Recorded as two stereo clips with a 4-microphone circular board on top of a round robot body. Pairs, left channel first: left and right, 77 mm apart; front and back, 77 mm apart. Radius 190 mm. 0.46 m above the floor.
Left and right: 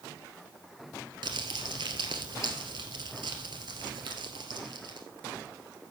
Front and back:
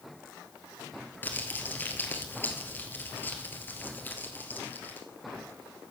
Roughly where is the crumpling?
Ahead right.